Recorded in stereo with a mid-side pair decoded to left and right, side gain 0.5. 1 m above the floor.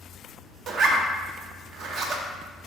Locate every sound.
0.7 s a zipper: 65° right, 0.7 m